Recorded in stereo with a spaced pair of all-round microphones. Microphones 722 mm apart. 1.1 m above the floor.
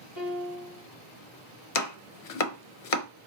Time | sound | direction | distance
0.2 | a piano | 30° right (ahead or behind) | 1.9 m
1.8 | chopping | 60° left (ahead or behind) | 0.5 m